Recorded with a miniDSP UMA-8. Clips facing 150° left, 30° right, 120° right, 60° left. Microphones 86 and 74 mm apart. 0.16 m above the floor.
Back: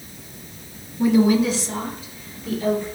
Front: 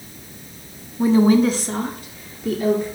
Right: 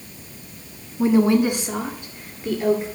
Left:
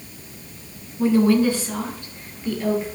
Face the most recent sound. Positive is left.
turn(degrees=-50)